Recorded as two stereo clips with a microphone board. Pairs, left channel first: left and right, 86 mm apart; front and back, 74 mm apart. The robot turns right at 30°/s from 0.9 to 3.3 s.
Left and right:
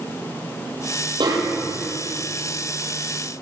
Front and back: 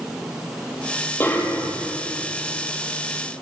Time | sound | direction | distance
1.2 | a snare drum | 60° right | 6 m